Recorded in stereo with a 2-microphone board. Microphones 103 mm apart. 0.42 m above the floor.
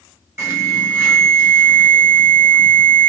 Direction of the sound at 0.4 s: 25° right (ahead or behind).